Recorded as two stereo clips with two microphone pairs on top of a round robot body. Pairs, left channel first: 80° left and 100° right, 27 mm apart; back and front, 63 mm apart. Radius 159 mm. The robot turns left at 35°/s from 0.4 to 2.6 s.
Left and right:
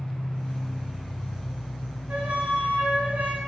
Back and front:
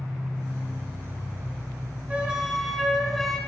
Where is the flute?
70° right, 1.3 m; by 3.4 s 90° right, 1.3 m.